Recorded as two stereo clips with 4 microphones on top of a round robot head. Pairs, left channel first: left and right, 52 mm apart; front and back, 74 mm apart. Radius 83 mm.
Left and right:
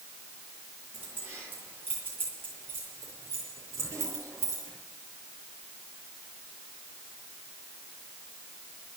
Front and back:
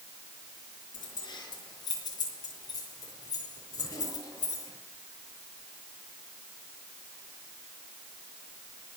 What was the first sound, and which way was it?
Keys jangling, 30° right.